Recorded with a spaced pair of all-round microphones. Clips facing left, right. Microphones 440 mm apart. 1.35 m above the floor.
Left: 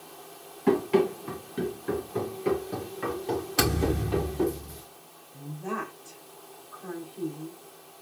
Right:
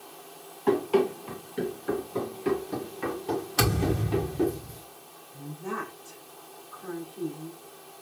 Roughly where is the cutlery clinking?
I don't hear cutlery clinking.